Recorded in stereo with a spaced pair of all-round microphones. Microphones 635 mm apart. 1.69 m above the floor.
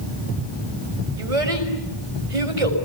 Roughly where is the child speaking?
Right.